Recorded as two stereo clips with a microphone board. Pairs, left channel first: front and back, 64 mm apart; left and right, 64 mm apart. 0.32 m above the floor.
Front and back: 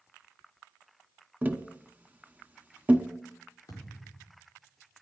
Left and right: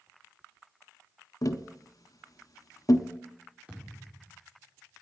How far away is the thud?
About 5.5 m.